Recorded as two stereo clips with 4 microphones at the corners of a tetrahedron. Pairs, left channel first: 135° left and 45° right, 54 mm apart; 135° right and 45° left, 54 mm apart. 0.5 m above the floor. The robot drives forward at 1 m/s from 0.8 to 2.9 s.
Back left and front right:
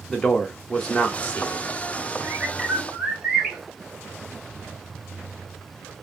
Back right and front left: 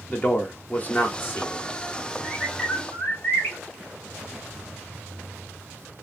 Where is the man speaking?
155° right, 0.9 m; by 1.6 s 170° right, 1.5 m.